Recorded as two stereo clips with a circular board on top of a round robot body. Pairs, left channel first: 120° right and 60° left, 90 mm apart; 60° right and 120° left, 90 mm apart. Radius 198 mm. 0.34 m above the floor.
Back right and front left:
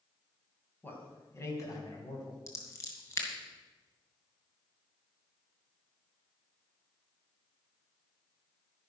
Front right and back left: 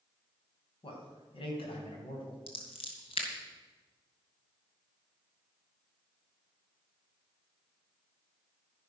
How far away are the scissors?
About 2.5 m.